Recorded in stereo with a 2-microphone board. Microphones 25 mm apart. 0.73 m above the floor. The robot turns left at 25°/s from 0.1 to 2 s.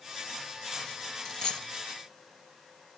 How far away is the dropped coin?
About 0.9 m.